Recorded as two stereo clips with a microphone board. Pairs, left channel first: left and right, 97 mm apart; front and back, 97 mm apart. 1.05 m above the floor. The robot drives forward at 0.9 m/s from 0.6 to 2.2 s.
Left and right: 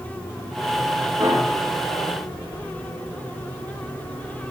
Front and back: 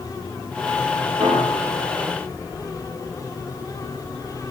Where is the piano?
135° right, 2.5 m; by 1.8 s 145° right, 3 m.